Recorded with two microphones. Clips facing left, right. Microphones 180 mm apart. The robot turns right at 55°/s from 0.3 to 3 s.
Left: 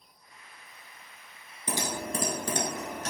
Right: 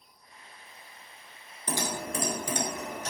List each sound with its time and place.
1.7 s typing on a keyboard: 15° left (ahead or behind), 0.7 m; by 3.1 s 80° left, 0.7 m